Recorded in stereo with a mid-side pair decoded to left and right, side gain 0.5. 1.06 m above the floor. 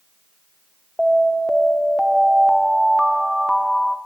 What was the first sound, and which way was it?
An alarm, 5° left.